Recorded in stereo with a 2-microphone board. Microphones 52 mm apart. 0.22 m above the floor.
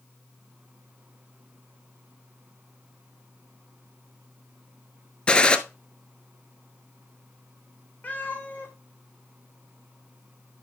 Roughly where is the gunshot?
Centre.